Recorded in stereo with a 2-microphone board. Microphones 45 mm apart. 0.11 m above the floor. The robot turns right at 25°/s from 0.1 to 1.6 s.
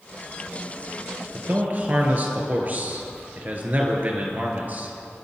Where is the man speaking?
45° right (ahead or behind), 2.0 m; by 4.9 s 40° right (ahead or behind), 2.0 m.